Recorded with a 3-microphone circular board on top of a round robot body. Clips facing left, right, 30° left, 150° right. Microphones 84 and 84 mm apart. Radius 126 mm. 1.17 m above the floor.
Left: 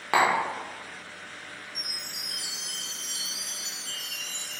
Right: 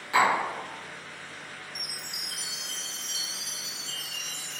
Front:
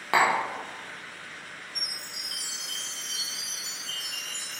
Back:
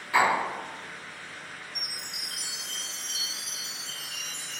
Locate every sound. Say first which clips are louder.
0.1 s tapping: even, even; 50° left, 0.6 m
1.8 s a chime: even, even; 170° right, 1.8 m